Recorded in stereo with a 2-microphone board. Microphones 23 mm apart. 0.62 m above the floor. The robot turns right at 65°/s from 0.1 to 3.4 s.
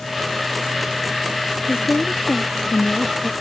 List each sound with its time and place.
1.7 s a woman speaking: 65° left; by 3.3 s 175° left